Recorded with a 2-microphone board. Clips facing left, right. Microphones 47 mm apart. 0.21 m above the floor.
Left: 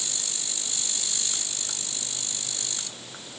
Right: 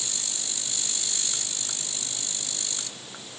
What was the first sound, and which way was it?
Only background noise.